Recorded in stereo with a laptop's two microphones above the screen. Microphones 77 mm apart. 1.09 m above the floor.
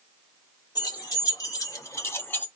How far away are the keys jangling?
About 1.8 m.